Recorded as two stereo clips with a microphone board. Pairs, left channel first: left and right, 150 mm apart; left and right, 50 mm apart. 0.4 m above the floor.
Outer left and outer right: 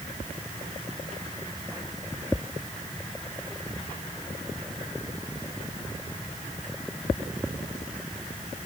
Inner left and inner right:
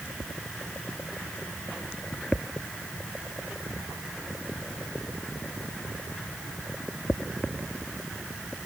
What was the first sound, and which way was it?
Only background noise.